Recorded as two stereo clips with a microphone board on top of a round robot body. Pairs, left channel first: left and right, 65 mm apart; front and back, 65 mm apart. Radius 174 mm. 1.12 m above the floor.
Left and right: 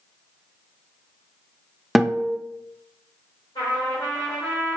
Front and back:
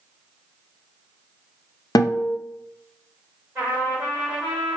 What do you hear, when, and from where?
1.9 s a guitar: straight ahead, 0.5 m
3.5 s a trumpet: 105° left, 0.9 m